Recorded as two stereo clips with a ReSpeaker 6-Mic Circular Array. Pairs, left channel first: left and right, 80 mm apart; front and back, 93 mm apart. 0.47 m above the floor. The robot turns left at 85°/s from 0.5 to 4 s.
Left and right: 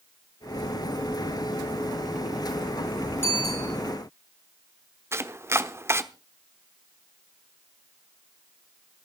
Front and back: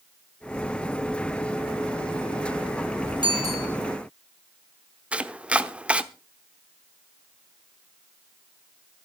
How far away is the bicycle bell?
About 9 m.